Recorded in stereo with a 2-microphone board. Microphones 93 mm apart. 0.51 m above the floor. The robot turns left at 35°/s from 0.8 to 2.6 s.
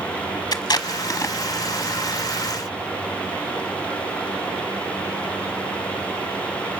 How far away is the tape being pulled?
About 0.9 m.